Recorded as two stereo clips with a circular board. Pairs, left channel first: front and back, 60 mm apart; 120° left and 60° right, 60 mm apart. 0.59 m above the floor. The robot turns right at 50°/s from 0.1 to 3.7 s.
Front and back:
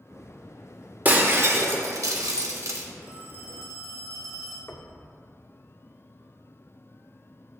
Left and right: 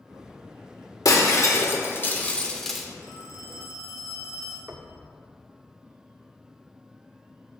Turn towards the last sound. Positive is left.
turn(degrees=-35)